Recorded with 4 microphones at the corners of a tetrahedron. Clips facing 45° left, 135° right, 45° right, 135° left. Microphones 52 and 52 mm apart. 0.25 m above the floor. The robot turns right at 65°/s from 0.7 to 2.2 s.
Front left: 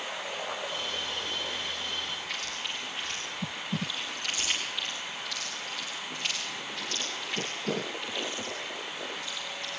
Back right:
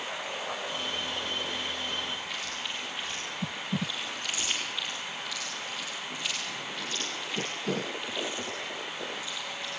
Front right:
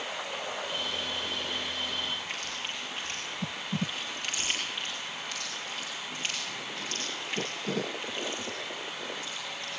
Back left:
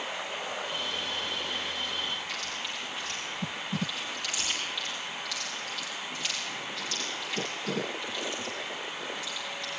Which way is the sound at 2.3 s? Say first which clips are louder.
Even, back left 1 dB; 10° left.